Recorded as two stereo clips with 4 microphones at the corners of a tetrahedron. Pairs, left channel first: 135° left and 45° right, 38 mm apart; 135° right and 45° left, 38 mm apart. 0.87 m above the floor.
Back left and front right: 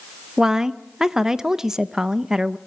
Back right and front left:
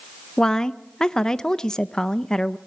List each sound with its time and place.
0.4 s a woman speaking: 90° right, 0.6 m